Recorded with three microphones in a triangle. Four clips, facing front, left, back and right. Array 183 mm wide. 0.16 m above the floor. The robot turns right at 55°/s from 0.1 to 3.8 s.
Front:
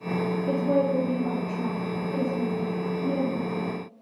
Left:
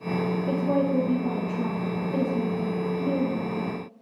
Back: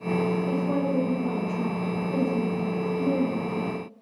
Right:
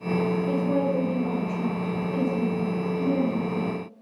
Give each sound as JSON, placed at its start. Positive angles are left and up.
{"t": 0.5, "sound": "a woman speaking", "azimuth_deg": 75, "distance_m": 3.0}